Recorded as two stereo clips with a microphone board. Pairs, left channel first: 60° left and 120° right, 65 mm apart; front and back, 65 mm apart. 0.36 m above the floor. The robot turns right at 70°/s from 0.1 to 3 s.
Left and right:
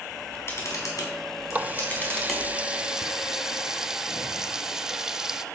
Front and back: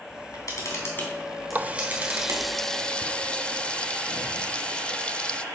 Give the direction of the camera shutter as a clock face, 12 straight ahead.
12 o'clock.